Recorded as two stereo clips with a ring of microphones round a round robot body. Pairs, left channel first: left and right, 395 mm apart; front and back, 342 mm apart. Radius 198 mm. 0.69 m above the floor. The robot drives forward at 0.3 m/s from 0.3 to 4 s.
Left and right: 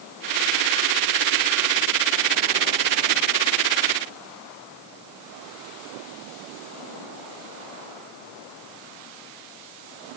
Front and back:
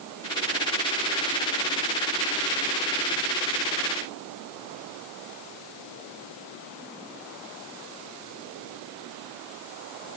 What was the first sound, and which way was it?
Only background noise.